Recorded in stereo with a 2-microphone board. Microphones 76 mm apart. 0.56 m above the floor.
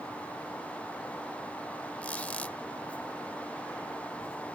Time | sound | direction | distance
2.0 | a squeak | 20° left (ahead or behind) | ?